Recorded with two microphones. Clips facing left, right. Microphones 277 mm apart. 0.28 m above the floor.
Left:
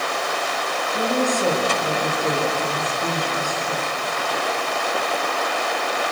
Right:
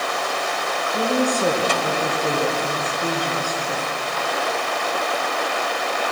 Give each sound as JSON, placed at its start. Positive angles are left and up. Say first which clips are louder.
{"t": 0.9, "sound": "a woman speaking", "louder": "right 1 dB", "side_deg": -20, "distance_m": 5.0}